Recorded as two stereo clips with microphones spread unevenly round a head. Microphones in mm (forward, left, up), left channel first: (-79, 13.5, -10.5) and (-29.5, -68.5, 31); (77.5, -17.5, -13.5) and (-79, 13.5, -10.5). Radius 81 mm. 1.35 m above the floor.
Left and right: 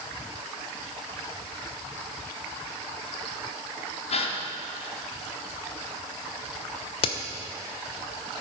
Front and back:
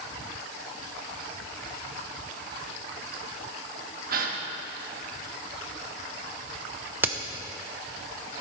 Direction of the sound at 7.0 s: 90° left.